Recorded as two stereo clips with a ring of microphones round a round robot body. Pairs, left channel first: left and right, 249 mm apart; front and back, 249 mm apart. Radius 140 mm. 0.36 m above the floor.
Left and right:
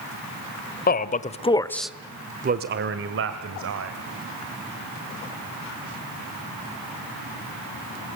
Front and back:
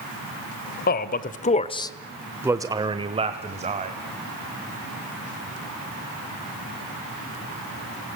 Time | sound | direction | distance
0.9 | a man speaking | 45° left | 1.5 m